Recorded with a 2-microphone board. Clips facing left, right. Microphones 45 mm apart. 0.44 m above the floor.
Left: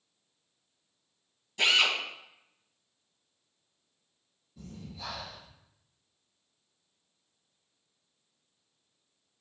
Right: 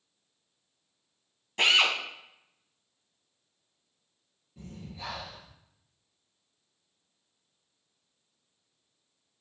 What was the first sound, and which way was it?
A drill, 50° right (ahead or behind).